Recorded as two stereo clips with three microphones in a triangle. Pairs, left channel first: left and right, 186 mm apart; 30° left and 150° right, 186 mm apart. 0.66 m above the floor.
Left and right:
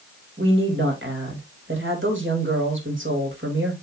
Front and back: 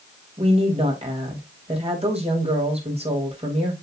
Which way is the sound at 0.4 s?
90° right.